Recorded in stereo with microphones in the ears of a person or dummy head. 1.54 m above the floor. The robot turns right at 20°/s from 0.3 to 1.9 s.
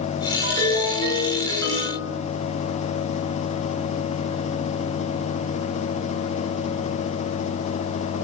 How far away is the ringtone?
About 3 m.